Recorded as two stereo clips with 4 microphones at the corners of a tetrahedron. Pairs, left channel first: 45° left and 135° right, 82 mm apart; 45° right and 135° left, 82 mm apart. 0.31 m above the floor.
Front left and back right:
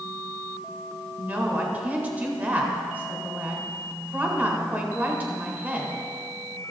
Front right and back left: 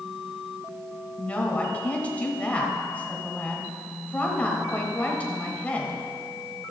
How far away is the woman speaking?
About 1.5 m.